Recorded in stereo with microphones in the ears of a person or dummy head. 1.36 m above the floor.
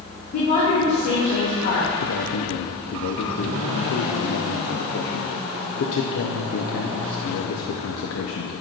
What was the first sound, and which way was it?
A woman speaking, 50° left (ahead or behind).